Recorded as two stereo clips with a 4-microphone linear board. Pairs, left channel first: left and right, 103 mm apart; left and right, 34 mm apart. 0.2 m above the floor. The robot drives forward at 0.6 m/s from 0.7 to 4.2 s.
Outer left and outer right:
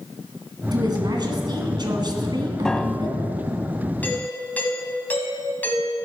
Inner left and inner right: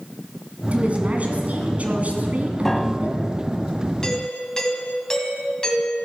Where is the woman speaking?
45° right (ahead or behind), 1.9 m; by 3.2 s 40° right (ahead or behind), 2.0 m.